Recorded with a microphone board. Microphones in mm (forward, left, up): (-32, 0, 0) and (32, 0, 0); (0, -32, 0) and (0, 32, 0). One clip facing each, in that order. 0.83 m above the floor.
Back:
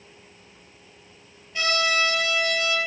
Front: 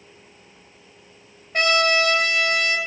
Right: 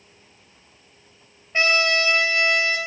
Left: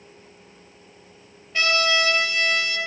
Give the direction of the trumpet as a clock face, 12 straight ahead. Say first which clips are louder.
Front 5 dB, right 1 dB; 1 o'clock.